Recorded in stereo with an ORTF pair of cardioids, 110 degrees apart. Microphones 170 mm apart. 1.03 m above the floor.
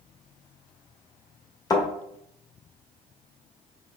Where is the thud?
25° left, 1.7 m.